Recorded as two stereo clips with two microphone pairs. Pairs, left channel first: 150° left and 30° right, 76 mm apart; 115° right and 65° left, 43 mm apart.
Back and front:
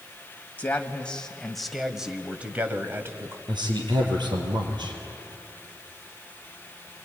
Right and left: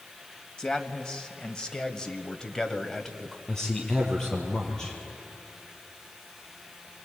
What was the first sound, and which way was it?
A man speaking, 165° right.